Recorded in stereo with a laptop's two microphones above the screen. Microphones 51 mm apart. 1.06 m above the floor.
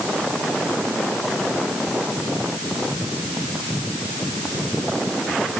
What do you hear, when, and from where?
Only background noise.